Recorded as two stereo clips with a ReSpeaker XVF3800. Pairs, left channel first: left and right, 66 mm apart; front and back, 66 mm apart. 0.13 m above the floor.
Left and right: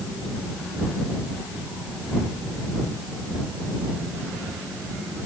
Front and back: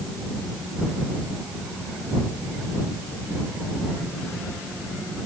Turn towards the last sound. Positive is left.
No sound to turn to.